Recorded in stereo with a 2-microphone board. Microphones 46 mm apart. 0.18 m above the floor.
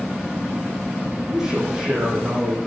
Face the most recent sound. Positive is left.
turn(degrees=-10)  # may be behind; listen again after turning